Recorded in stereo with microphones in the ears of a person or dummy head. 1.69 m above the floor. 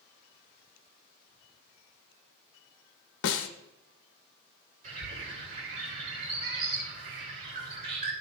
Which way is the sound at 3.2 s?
65° left (ahead or behind).